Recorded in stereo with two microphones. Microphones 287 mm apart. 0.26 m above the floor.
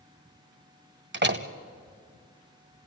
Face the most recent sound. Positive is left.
turn(degrees=-40)  # may be behind; listen again after turning